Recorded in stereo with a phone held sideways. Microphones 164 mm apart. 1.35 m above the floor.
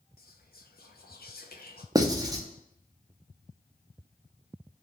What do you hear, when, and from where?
0.2 s whispering: 70° left (ahead or behind), 0.5 m
1.9 s writing: 20° right (ahead or behind), 0.6 m